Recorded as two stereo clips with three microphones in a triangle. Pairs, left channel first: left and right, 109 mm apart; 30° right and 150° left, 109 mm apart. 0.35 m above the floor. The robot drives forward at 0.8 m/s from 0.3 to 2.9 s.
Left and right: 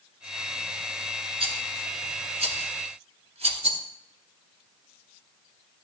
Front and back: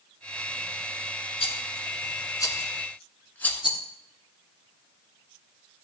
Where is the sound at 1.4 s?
60° right, 1.7 m; by 3.6 s 105° right, 1.5 m.